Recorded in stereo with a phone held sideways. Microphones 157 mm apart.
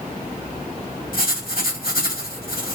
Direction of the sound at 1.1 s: 75° left (ahead or behind).